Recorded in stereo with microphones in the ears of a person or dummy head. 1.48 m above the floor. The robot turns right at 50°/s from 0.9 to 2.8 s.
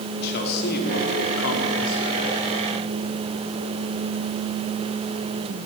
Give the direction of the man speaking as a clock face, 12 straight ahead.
10 o'clock.